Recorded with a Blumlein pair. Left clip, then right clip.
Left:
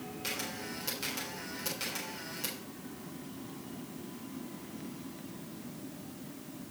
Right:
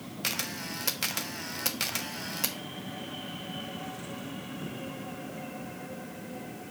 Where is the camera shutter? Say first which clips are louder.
Right 5 dB; 30° right, 0.8 m.